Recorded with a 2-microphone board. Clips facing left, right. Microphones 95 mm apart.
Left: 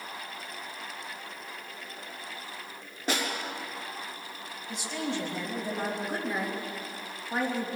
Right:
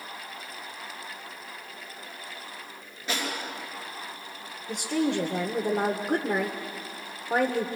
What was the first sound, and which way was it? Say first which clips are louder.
A snare drum: left 1 dB; 40° left (ahead or behind).